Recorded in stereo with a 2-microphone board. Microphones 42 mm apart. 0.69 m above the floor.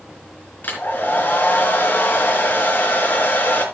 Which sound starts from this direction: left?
A hair dryer, at 0.6 s.